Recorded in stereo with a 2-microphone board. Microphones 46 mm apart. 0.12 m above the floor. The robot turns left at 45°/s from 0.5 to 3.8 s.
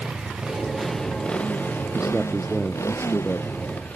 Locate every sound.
0.0 s a motorcycle: 15° right (ahead or behind); by 4.0 s 35° left (ahead or behind)
1.9 s a man speaking: 160° right; by 3.5 s 130° left